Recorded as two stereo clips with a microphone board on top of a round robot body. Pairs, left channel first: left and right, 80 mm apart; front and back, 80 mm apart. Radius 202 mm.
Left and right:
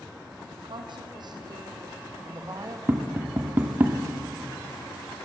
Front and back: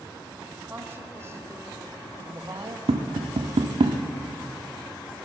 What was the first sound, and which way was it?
A woman speaking, 115° right.